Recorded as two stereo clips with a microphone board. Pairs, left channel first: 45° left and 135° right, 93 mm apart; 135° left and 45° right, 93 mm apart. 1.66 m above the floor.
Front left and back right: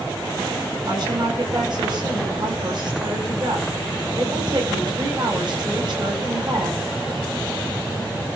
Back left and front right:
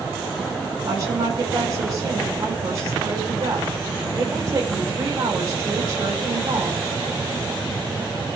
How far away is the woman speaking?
About 9 m.